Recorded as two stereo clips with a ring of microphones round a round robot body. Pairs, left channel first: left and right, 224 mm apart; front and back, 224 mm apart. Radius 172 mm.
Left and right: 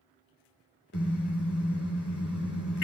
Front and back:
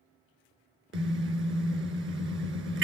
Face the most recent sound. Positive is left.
turn(degrees=145)